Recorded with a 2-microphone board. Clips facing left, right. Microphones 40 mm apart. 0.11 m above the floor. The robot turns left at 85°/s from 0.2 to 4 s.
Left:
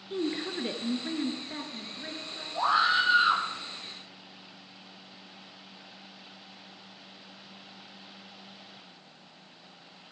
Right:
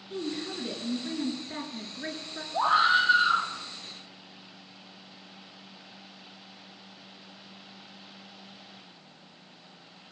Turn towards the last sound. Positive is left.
turn(degrees=100)